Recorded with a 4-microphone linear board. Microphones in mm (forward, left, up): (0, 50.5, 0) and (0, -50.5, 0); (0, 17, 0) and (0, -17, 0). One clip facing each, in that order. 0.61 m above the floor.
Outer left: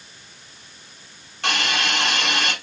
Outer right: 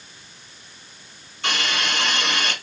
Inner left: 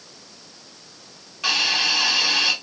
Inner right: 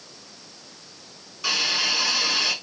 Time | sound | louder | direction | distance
1.4 | a hiss | outer left 2 dB, inner left 3 dB | 65° left (ahead or behind) | 1.9 m